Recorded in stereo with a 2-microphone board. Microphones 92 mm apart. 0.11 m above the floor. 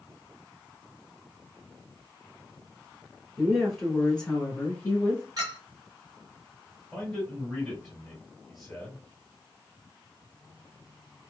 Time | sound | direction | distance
3.4 | a woman speaking | 5° right (ahead or behind) | 1.3 m
5.4 | a clink | 45° right (ahead or behind) | 1.5 m
6.9 | a man speaking | centre (ahead or behind) | 1.7 m